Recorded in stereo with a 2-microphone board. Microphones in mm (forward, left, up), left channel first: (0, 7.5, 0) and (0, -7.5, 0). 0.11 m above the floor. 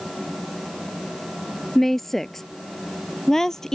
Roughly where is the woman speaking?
Centre.